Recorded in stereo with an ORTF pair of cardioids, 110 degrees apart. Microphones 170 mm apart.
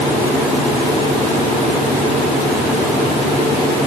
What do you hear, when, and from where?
Only background noise.